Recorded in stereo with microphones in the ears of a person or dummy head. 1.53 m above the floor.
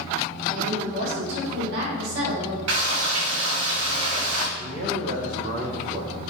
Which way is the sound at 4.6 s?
45° right (ahead or behind).